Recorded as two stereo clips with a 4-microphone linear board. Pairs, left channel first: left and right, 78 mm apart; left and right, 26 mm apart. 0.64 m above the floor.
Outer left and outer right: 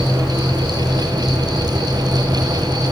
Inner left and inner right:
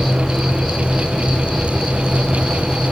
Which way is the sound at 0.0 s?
5° left (ahead or behind).